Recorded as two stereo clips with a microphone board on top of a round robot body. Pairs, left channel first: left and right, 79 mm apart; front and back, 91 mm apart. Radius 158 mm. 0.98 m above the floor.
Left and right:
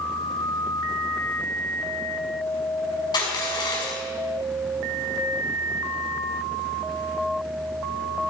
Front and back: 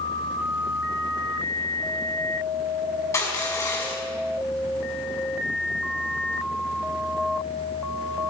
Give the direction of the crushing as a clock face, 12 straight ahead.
10 o'clock.